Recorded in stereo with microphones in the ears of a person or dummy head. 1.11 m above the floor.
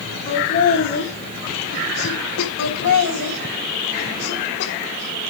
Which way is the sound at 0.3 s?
35° left (ahead or behind).